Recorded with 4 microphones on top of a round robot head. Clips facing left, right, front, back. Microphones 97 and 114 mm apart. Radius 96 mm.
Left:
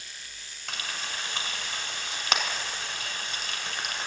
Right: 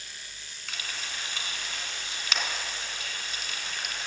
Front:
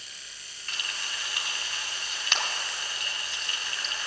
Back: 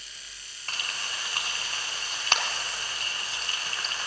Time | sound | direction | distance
0.7 | frying | 125° left | 1.5 m